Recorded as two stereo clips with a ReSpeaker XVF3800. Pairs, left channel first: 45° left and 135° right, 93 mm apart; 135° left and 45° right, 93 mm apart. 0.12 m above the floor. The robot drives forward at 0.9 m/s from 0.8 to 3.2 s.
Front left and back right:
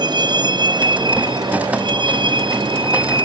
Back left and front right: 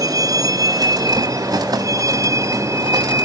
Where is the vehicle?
95° right; by 3.2 s 105° right.